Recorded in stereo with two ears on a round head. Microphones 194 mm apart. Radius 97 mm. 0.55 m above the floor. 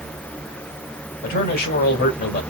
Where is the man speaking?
40° left (ahead or behind), 1.9 m.